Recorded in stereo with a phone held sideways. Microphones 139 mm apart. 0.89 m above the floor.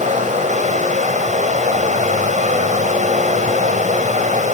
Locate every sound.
0.0 s running water: 65° right (ahead or behind), 1.7 m